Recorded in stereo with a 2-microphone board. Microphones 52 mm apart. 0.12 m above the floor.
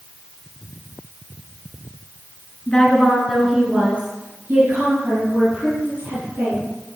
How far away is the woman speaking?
About 1.8 m.